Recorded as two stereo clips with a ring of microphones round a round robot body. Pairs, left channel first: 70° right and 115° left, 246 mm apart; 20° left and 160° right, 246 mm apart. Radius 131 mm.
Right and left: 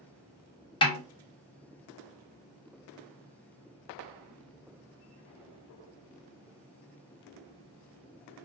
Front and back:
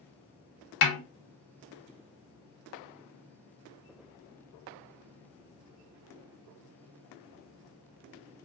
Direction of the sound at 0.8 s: Straight ahead.